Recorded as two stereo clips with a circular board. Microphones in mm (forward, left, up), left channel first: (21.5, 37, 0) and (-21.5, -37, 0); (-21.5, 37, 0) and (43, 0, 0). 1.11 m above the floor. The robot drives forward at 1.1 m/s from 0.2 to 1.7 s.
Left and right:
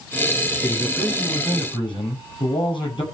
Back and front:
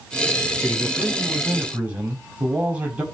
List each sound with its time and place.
0.6 s a man speaking: 35° left, 8.5 m; by 3.0 s 40° left, 7.5 m